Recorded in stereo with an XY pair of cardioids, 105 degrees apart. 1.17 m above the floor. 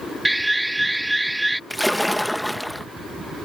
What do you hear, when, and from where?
0.2 s an alarm: 5° right
1.7 s a splash: 5° left